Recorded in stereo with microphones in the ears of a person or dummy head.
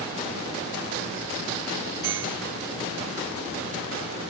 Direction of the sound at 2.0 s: 20° right (ahead or behind).